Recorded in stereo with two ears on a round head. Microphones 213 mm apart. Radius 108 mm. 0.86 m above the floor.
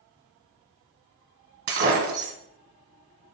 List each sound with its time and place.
1.7 s breaking glass: 50° right (ahead or behind), 1.8 m